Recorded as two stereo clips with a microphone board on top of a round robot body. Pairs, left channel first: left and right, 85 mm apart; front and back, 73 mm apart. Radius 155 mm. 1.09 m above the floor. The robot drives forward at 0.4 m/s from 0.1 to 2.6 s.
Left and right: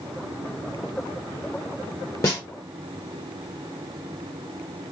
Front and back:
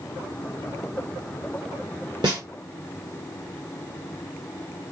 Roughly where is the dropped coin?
No dropped coin in this recording.